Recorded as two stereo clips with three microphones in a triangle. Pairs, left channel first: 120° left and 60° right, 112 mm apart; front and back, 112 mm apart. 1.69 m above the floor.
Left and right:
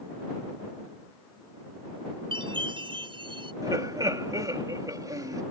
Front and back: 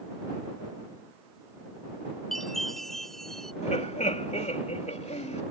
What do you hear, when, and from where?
2.3 s a chime: 90° right
3.6 s laughter: 5° right